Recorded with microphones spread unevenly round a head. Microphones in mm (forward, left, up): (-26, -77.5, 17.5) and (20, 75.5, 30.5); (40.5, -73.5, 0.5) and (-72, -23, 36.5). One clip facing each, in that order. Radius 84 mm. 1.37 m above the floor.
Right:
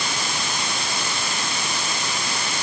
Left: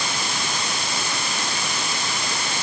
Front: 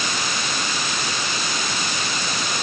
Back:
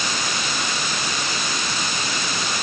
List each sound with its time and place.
Only background noise.